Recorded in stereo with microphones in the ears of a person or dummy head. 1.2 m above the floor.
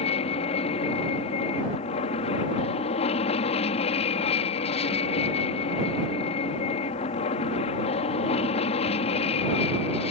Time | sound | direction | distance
0.0 | an aircraft | 30° left (ahead or behind) | ?